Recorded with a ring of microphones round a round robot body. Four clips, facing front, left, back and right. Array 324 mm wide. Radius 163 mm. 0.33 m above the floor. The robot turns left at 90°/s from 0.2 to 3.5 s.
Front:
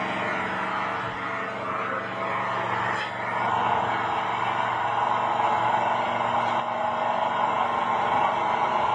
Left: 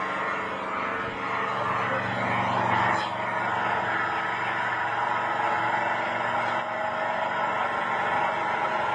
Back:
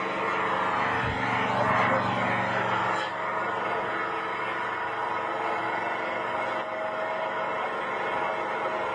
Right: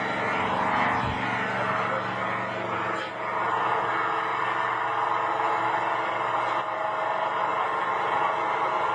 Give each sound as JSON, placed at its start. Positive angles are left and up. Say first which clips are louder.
{"t": 0.0, "sound": "an engine running", "louder": "right 2 dB, even", "azimuth_deg": -35, "distance_m": 1.8}